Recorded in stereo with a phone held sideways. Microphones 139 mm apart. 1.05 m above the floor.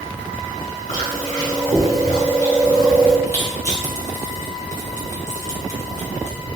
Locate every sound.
0.9 s chewing: 75° left (ahead or behind), 1.9 m
3.3 s crushing: 60° left (ahead or behind), 1.4 m